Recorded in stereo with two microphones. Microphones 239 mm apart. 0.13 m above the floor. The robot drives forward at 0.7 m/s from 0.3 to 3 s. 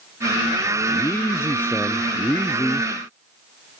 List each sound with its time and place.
0.9 s a man speaking: 10° left (ahead or behind); by 2.9 s 5° left (ahead or behind)